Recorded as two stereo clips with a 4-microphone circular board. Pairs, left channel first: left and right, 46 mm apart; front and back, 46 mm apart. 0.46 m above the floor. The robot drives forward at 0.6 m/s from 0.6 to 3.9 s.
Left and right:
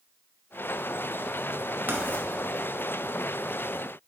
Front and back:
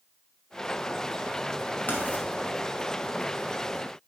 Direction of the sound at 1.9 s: 50° right.